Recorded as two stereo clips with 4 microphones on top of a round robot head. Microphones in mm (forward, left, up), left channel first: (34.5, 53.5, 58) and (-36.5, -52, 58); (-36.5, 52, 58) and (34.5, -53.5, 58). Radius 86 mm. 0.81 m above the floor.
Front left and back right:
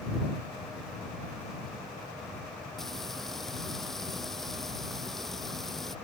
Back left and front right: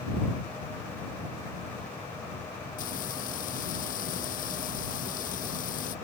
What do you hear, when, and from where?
2.8 s frying: 145° left